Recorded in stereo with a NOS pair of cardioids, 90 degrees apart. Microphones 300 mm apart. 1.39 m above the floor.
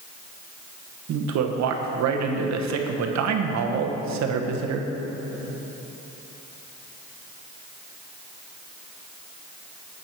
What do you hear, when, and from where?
1.1 s a man speaking: 65° right, 0.9 m